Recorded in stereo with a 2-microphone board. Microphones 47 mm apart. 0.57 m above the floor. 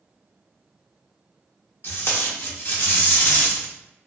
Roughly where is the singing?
No singing in this recording.